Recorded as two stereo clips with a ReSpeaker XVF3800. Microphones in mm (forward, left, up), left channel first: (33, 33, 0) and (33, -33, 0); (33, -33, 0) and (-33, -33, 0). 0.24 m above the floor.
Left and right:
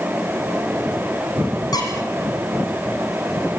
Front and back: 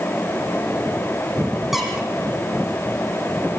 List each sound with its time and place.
1.7 s a squeak: 95° left, 5 m